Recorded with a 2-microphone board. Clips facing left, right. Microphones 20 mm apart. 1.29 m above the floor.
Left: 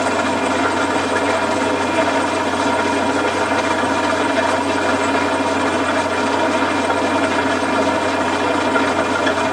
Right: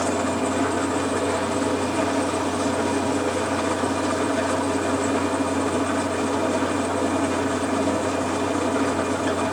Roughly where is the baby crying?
No baby crying in this recording.